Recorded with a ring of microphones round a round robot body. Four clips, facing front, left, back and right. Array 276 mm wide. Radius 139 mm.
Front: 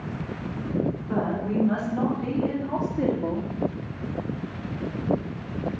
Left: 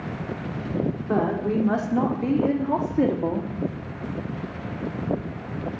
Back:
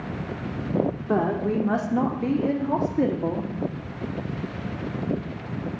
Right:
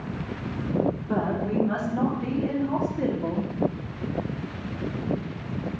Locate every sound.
1.1 s a woman speaking: 145° left, 2 m; by 3.5 s 105° left, 1.3 m